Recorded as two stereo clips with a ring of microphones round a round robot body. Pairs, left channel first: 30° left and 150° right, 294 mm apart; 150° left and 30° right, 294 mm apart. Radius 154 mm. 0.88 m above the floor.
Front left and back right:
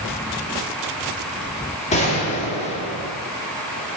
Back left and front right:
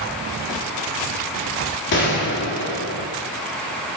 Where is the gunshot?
100° left, 1.9 m.